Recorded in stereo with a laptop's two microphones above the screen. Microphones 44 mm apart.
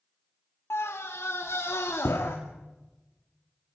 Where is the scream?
75° left (ahead or behind), 2 m; by 2.4 s 80° left, 2.5 m.